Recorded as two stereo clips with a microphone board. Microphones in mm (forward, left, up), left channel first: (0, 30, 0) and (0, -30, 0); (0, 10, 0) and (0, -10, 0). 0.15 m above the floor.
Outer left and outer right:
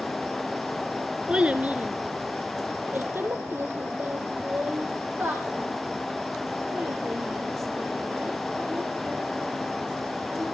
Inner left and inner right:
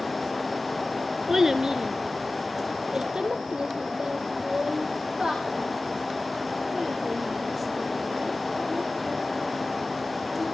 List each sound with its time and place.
1.3 s a child speaking: 20° right (ahead or behind), 1.2 m; by 10.4 s 50° right (ahead or behind), 11.5 m